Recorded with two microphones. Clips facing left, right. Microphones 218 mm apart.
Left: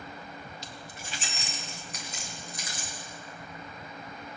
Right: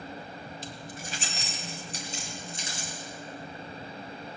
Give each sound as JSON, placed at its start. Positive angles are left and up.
{"t": 0.6, "sound": "keys jangling", "side_deg": -50, "distance_m": 1.4}